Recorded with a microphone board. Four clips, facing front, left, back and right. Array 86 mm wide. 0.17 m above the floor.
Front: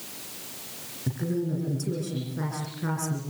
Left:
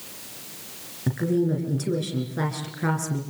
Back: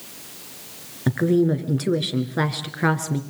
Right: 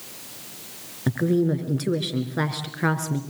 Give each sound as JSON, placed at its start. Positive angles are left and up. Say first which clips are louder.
{"t": 1.1, "sound": "a woman speaking", "louder": "right 2 dB, back 10 dB", "azimuth_deg": -155, "distance_m": 2.5}